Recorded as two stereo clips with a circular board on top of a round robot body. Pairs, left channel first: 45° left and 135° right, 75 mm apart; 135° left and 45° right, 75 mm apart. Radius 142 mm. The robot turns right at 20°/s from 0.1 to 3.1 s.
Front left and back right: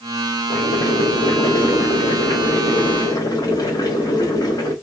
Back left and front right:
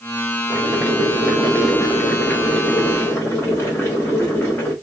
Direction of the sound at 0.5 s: 25° left.